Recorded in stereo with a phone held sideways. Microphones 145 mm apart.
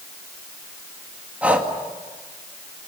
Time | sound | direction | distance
1.4 | breathing | 10° right (ahead or behind) | 2 m